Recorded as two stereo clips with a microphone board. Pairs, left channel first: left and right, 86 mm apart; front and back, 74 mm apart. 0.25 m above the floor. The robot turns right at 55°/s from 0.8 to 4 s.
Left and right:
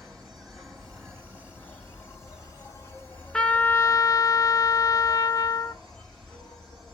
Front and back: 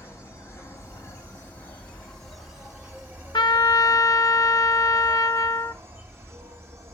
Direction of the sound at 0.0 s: Straight ahead.